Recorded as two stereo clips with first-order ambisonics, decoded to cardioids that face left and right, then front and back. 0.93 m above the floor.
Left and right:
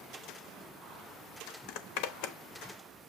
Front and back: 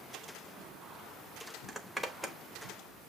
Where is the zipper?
90° left, 1.0 m.